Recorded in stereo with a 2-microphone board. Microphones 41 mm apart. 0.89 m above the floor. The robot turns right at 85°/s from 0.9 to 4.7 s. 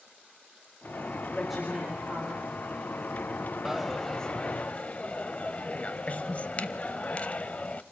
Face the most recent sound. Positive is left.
turn(degrees=70)